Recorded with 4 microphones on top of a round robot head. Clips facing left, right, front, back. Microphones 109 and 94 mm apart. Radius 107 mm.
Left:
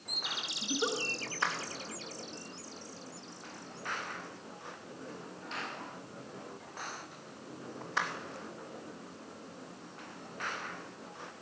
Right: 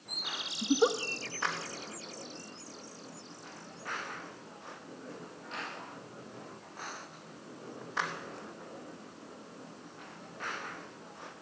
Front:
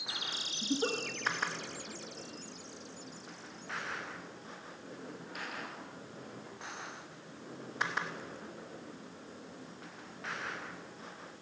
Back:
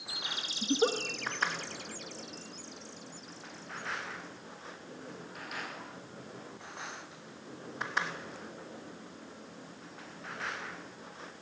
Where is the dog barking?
I don't hear a dog barking.